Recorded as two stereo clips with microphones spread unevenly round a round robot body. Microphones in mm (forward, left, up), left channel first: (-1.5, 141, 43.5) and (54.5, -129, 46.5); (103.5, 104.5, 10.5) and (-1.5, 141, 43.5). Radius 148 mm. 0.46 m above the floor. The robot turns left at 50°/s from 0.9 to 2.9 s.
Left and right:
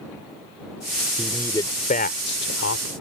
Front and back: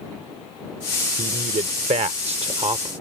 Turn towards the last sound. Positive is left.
turn(degrees=110)